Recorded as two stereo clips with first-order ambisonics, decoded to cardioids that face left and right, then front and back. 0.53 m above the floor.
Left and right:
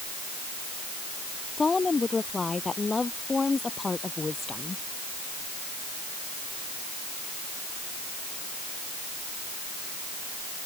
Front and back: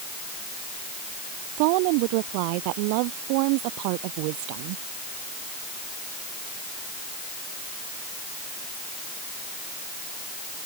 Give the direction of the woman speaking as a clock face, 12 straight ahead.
6 o'clock.